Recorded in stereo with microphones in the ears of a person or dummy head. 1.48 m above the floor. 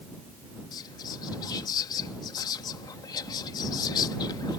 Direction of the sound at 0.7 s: 25° left (ahead or behind).